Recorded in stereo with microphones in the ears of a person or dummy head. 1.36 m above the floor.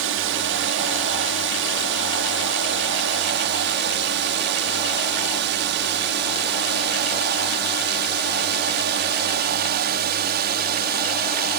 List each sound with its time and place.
0.0 s a drone: 65° right (ahead or behind); by 11.6 s 50° right (ahead or behind)